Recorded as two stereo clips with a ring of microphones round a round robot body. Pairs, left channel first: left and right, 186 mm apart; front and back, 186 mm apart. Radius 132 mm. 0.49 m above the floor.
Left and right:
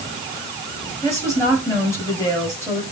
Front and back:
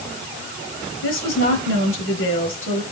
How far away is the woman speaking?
About 8.5 m.